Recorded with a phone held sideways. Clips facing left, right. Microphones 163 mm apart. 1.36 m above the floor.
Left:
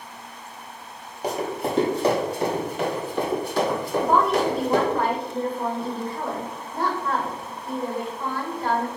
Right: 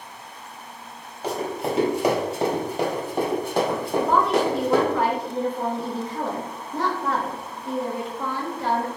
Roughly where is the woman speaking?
Right.